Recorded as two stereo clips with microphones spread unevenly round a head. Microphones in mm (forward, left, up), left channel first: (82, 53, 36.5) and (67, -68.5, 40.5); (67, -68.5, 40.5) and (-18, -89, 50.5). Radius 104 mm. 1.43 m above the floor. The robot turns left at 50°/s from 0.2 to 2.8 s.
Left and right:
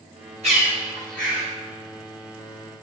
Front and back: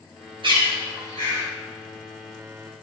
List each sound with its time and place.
0.4 s a bird: 155° right, 4.5 m; by 1.4 s 155° left, 4.5 m